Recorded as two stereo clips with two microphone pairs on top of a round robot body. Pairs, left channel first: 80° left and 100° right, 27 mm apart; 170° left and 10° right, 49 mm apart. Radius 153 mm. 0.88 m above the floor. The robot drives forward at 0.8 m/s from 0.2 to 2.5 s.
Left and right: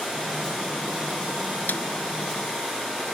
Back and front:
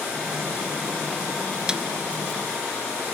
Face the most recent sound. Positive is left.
turn(degrees=75)